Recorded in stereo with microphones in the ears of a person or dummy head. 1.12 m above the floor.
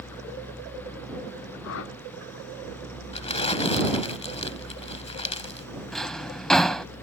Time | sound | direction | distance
1.6 | a whoosh | 75° left (ahead or behind) | ?
3.1 | crumpling | 35° left (ahead or behind) | ?
5.9 | a drawer | centre (ahead or behind) | ?